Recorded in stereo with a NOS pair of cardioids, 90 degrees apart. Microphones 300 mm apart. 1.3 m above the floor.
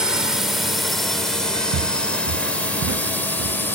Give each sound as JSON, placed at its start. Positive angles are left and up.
{"t": 0.0, "sound": "a drone", "azimuth_deg": 0}
{"t": 1.7, "sound": "footsteps", "azimuth_deg": -70}